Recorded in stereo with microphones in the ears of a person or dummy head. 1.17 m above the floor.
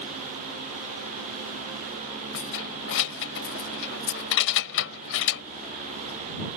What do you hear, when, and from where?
2.3 s keys jangling: 65° left (ahead or behind)